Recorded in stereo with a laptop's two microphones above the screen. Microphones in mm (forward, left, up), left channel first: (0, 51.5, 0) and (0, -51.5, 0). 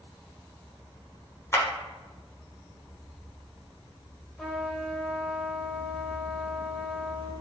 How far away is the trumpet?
About 0.7 m.